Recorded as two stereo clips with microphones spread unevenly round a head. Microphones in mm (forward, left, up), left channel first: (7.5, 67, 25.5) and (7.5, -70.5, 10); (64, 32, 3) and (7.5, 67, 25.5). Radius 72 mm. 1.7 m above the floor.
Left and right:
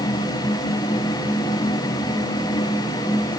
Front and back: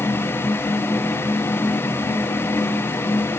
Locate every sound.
Only background noise.